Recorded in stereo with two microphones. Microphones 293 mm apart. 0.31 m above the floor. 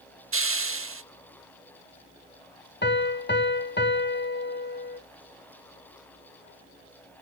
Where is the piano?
35° left (ahead or behind), 0.7 m.